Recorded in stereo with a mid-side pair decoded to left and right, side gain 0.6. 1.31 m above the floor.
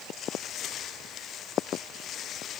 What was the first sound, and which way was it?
Only background noise.